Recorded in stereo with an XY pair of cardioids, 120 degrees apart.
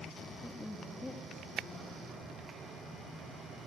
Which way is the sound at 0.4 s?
5° left.